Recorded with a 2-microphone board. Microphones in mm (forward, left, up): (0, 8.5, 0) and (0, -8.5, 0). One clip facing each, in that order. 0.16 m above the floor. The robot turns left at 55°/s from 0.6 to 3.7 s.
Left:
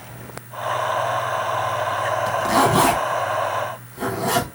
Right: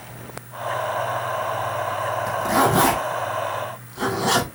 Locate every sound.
2.3 s a zipper: 40° left (ahead or behind), 2.5 m; by 4.5 s 35° right (ahead or behind), 2.5 m